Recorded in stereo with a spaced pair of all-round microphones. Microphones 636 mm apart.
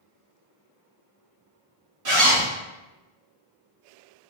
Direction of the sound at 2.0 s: 65° right (ahead or behind).